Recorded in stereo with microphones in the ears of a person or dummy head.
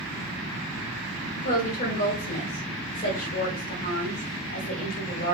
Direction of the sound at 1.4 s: 45° left (ahead or behind).